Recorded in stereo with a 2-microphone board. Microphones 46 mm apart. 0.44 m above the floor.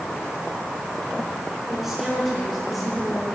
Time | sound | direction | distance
1.7 | a woman speaking | 5° right (ahead or behind) | 5.5 m